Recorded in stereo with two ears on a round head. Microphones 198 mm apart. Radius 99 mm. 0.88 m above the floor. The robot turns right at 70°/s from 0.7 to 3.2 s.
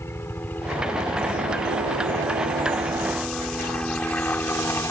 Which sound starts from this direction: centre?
A helicopter, at 0.0 s.